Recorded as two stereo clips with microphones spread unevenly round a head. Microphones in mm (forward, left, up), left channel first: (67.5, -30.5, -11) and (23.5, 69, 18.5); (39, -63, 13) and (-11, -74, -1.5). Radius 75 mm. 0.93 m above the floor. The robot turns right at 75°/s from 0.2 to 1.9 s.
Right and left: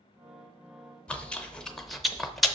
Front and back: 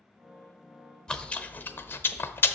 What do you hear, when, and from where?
1.1 s chewing: 75° right, 0.6 m; by 2.6 s 15° right, 0.6 m